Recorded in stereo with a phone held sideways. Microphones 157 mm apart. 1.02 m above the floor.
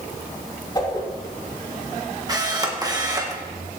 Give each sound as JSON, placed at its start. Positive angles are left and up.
{"t": 0.8, "sound": "a whoosh", "side_deg": 25, "distance_m": 3.0}
{"t": 2.3, "sound": "a camera shutter", "side_deg": -25, "distance_m": 1.5}